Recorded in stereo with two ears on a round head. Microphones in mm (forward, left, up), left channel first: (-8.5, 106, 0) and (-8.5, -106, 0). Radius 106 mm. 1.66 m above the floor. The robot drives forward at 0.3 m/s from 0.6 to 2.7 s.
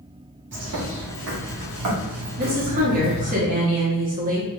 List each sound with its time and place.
0.5 s a bird: 50° right (ahead or behind), 1.0 m; by 3.4 s 90° right, 0.8 m
2.4 s a woman speaking: 40° right (ahead or behind), 0.7 m; by 4.6 s 35° right (ahead or behind), 0.8 m